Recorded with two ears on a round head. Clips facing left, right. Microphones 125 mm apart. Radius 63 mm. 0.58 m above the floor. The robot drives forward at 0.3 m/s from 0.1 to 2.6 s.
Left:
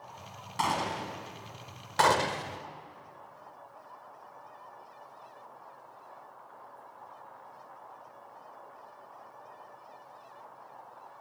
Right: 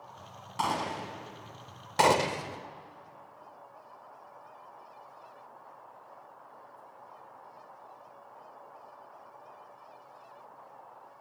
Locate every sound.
0.6 s a gunshot: centre (ahead or behind), 3.5 m
2.0 s a gunshot: 20° right (ahead or behind), 0.9 m; by 2.6 s 15° right (ahead or behind), 1.1 m